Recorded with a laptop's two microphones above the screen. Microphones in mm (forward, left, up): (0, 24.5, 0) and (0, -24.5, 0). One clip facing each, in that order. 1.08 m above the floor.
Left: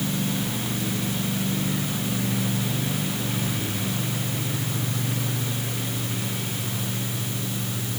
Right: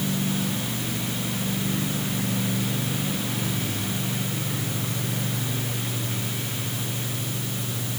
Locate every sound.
Only background noise.